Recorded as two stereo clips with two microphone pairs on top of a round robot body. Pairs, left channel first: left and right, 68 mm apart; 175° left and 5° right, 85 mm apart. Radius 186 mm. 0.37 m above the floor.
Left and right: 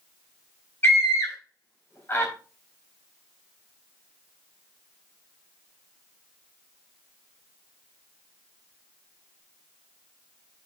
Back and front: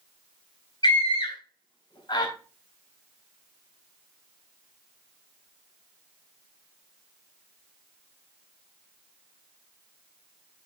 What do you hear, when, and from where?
0.8 s a scream: 145° left, 2.5 m